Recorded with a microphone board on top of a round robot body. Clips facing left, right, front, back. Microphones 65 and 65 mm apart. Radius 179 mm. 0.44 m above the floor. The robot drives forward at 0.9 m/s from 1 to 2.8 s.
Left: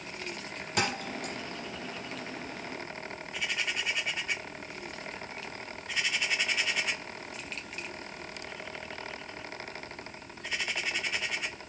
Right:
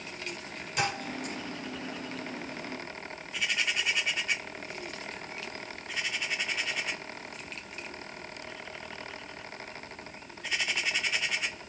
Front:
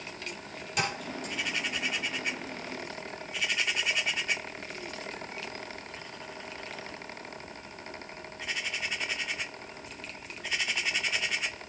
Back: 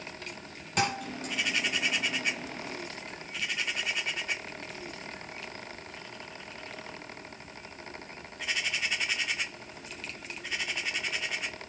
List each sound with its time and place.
0.8 s a thud: 130° left, 6.5 m; by 1.3 s 135° left, 7 m